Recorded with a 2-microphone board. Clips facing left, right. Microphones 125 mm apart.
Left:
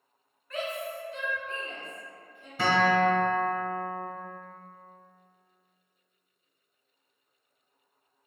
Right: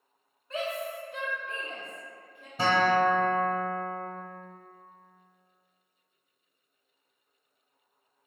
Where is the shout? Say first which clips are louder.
Right 1 dB; 25° right (ahead or behind), 0.7 m; by 2.5 s 65° right (ahead or behind), 1.7 m.